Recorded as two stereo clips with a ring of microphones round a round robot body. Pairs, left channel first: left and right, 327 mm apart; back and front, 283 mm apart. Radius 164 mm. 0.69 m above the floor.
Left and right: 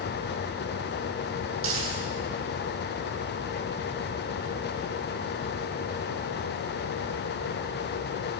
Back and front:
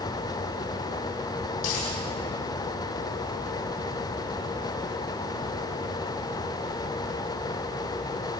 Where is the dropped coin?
145° right, 6 m.